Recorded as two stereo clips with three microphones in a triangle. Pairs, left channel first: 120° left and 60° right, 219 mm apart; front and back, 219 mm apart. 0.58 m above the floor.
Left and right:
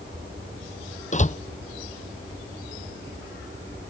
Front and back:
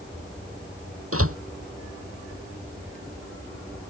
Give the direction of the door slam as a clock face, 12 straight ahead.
6 o'clock.